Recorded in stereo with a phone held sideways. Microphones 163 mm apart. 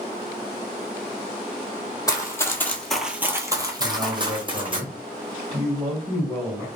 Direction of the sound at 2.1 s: 20° left (ahead or behind).